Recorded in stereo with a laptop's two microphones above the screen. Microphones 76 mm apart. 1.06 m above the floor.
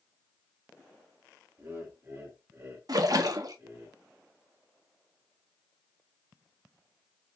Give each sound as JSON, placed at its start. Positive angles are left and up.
{"t": 1.6, "sound": "laughter", "side_deg": -30, "distance_m": 1.8}
{"t": 2.9, "sound": "a splash", "side_deg": -55, "distance_m": 0.6}